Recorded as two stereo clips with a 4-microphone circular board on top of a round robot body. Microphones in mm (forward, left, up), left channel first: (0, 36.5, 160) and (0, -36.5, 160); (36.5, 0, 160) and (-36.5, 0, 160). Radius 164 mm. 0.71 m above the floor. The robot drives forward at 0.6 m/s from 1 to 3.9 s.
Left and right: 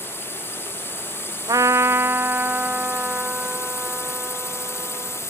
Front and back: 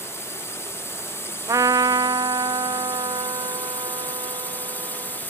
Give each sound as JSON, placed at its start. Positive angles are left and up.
{"t": 0.0, "sound": "a drone", "azimuth_deg": 40}
{"t": 1.5, "sound": "a trumpet", "azimuth_deg": -130}